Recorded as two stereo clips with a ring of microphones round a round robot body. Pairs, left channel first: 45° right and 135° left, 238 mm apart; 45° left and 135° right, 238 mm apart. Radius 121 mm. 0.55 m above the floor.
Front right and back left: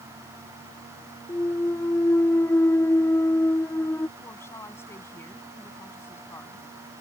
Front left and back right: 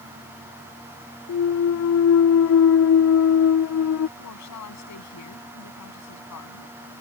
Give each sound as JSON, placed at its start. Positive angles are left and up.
{"t": 1.3, "sound": "a clunk", "azimuth_deg": 35}
{"t": 4.2, "sound": "a woman speaking", "azimuth_deg": 35}